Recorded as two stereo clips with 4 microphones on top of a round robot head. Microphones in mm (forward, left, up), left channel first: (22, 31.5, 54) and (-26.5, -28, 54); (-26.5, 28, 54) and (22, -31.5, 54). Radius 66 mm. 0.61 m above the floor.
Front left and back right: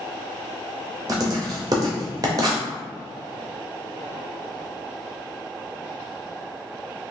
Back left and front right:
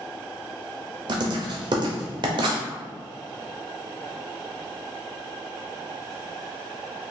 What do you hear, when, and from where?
1.1 s writing: 85° right, 0.5 m